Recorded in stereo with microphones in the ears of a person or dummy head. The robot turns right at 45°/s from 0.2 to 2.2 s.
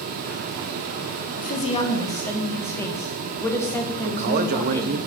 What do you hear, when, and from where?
1.4 s a woman speaking: 130° left, 1.4 m; by 5.0 s 165° left, 1.4 m
4.0 s a man speaking: 50° right (ahead or behind), 0.8 m